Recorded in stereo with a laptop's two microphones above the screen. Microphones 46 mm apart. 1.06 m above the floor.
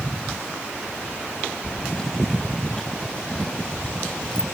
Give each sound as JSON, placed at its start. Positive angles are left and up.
{"t": 1.6, "sound": "keys jangling", "side_deg": 15}